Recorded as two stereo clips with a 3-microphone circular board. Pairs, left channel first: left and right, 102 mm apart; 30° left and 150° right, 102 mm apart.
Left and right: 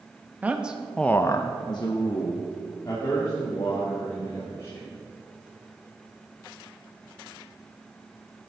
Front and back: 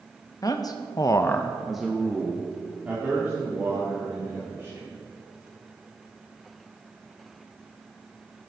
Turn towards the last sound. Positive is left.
turn(degrees=140)